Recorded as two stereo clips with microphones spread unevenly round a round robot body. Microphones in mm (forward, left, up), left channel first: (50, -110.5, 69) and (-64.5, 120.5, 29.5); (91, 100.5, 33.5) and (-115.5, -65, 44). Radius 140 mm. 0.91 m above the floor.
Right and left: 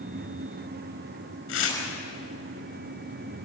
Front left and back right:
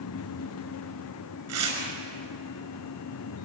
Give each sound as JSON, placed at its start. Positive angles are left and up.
{"t": 1.5, "sound": "tearing paper", "azimuth_deg": -105, "distance_m": 5.5}